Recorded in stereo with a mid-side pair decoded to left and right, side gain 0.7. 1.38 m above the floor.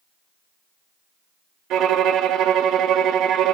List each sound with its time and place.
1.7 s a violin: 55° right, 0.9 m